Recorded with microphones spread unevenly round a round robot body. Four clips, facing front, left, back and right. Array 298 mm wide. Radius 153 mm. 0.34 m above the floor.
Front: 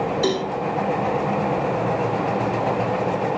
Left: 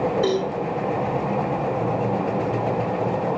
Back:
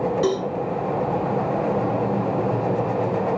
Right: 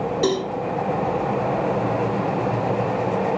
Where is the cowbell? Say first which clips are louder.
Even, even; 110° right, 7.5 m.